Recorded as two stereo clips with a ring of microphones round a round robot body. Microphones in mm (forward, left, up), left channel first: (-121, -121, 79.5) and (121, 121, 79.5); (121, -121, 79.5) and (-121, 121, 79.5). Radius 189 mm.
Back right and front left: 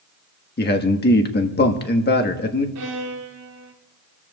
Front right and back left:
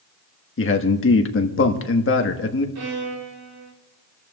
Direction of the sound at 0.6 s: 85° right.